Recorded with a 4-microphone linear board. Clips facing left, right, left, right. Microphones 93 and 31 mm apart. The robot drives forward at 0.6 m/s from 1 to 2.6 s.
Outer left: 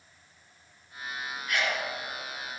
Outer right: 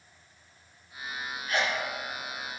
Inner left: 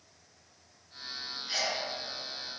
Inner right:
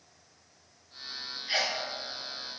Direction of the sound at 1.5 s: 35° right (ahead or behind).